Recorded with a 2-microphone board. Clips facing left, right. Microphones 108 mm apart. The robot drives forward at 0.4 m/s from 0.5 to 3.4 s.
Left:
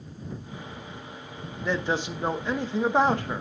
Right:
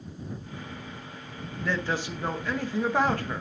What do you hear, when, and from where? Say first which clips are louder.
1.6 s a man speaking: left 2 dB; 20° left (ahead or behind), 0.9 m